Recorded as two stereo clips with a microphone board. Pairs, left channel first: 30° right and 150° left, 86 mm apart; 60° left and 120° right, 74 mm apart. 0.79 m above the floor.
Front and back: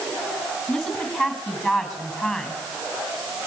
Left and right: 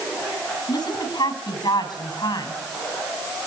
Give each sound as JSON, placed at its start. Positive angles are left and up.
{"t": 0.7, "sound": "a woman speaking", "azimuth_deg": 60, "distance_m": 6.0}